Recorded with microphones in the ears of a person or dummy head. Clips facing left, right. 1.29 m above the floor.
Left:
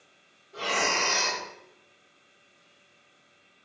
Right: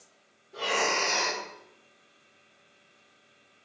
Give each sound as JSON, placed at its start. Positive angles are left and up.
{"t": 0.5, "sound": "breathing", "side_deg": -10, "distance_m": 1.1}